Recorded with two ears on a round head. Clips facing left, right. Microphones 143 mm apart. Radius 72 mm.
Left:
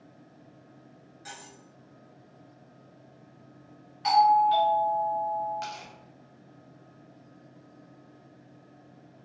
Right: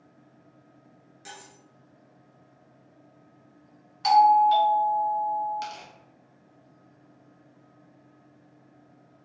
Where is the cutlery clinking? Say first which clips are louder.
Even; 35° right (ahead or behind), 1.4 m.